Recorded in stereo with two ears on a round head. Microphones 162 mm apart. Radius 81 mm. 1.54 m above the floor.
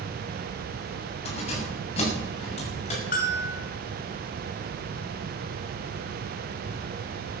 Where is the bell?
50° left (ahead or behind), 3 m.